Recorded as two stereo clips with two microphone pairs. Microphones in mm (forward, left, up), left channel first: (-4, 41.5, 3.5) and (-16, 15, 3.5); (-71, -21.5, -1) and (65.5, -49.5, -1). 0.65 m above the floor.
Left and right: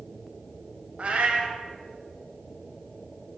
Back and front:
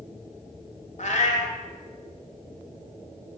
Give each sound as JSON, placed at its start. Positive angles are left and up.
{"t": 1.0, "sound": "a cat meowing", "azimuth_deg": -160, "distance_m": 0.9}